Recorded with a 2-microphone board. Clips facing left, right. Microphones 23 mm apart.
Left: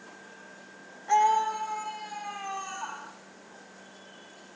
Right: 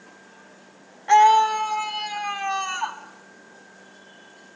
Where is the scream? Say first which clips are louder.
Right 9 dB; 45° right (ahead or behind), 1.2 m; by 3.0 s 75° right (ahead or behind), 3.5 m.